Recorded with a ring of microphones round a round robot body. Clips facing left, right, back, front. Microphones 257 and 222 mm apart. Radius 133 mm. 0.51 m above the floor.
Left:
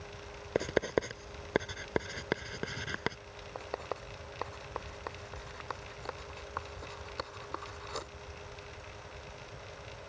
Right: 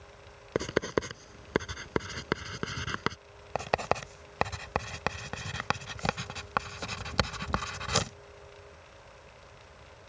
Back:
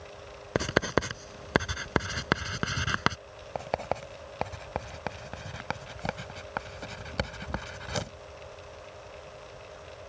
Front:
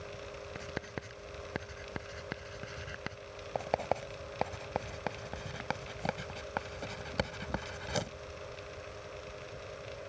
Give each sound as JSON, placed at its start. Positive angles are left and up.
{"t": 0.6, "sound": "writing", "azimuth_deg": -165}
{"t": 3.5, "sound": "writing", "azimuth_deg": -90}